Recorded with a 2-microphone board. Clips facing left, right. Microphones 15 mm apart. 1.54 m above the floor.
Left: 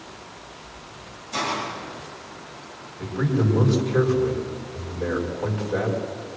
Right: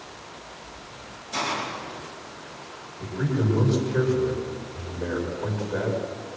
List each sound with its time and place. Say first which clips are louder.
1.3 s a hiss: left 1 dB; 15° left (ahead or behind), 9 m
3.0 s a man speaking: left 3 dB; 60° left (ahead or behind), 5.5 m